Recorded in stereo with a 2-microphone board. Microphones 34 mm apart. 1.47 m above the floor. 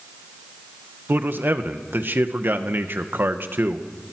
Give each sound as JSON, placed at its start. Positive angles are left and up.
{"t": 1.1, "sound": "a man speaking", "side_deg": -65, "distance_m": 1.4}